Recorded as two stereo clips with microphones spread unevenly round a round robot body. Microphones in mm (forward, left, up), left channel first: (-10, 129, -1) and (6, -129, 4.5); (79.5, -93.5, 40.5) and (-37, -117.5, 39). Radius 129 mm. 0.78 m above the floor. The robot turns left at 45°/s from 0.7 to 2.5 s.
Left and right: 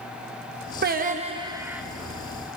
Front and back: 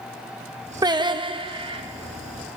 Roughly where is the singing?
Behind right.